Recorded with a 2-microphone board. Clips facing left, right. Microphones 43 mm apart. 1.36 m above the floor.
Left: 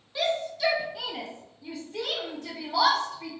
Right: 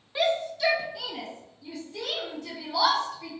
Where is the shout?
25° right (ahead or behind), 0.9 m; by 3.3 s 60° left (ahead or behind), 2.5 m.